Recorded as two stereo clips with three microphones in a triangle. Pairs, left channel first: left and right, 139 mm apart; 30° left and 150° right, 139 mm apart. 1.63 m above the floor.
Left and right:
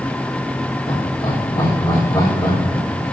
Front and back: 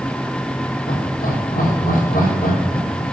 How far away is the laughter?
About 5 m.